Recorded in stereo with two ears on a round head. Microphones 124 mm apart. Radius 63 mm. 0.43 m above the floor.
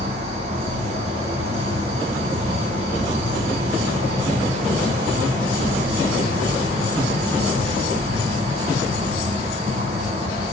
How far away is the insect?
About 1.1 m.